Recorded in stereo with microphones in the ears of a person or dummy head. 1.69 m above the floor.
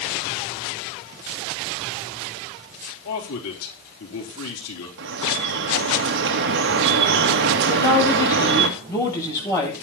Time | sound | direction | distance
3.0 | a man speaking | 85° left | 4.5 m
5.0 | dripping | 60° right (ahead or behind) | 2 m
7.7 | a woman speaking | 15° left (ahead or behind) | 9.5 m